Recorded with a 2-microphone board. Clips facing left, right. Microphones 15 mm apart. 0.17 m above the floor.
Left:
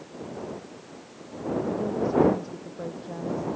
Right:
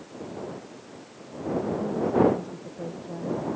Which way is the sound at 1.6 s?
30° left (ahead or behind).